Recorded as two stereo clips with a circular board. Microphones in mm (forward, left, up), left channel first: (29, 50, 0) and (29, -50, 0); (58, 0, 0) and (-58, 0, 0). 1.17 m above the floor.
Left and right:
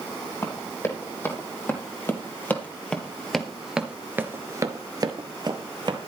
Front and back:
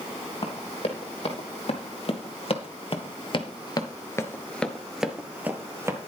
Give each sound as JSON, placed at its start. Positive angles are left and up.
{"t": 0.4, "sound": "running footsteps", "azimuth_deg": 30, "distance_m": 3.5}